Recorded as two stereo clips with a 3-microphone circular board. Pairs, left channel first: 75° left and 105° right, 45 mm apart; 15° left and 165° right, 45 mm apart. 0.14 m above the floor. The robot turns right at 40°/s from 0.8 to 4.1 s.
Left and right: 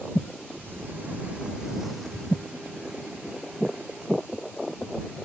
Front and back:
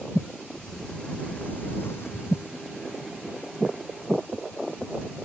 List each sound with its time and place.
0.5 s a sliding door: 65° right; by 2.5 s 5° left